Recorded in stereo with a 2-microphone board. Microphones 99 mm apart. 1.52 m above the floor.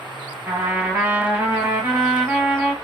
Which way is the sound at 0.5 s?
20° right (ahead or behind).